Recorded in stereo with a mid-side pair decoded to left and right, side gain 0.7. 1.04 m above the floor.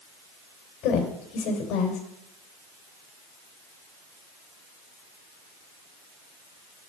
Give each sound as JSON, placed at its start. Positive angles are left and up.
{"t": 0.8, "sound": "a woman speaking", "azimuth_deg": 60, "distance_m": 3.5}